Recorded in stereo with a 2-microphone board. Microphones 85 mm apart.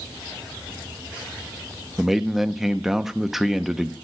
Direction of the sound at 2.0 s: 5° right (ahead or behind).